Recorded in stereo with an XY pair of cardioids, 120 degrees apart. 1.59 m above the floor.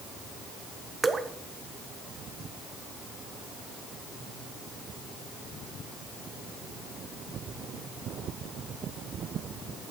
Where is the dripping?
15° right, 0.8 m.